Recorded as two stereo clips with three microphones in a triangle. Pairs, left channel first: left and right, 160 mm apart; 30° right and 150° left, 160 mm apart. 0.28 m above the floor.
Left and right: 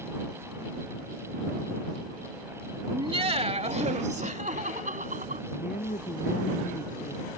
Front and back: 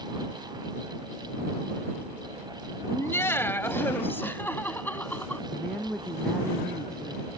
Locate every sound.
2.9 s laughter: 90° right; by 5.4 s 110° right
5.5 s a woman speaking: 55° left